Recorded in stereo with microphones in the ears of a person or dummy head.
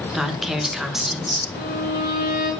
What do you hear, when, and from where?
0.1 s a woman speaking: 5° right (ahead or behind), 1.3 m
1.5 s a violin: 40° left (ahead or behind), 4 m